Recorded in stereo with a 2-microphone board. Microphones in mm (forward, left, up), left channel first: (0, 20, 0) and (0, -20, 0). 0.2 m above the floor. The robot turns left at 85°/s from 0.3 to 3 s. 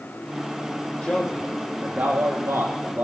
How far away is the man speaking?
About 8.5 m.